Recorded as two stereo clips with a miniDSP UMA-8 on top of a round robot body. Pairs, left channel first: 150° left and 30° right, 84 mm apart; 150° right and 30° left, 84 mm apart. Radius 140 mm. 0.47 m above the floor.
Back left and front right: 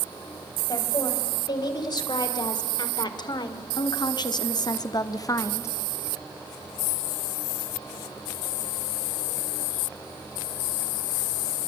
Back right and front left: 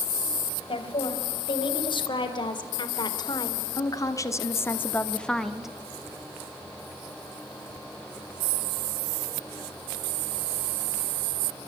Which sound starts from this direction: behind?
A woman speaking, at 0.7 s.